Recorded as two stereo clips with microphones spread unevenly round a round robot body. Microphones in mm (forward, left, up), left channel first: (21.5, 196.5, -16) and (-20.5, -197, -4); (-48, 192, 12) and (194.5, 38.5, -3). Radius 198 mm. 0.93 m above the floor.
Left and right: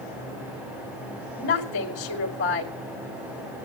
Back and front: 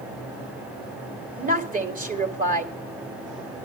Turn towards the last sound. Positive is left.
turn(degrees=25)